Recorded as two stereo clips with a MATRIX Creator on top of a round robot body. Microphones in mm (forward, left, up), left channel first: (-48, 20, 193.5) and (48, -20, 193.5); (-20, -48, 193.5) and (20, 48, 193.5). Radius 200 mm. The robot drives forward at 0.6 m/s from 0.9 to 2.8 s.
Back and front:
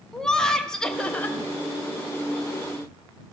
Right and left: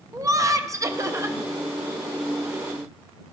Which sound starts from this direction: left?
Laughter, at 0.1 s.